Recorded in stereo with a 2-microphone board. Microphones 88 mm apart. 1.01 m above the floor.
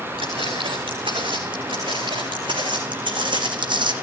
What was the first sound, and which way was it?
Footsteps, 80° right.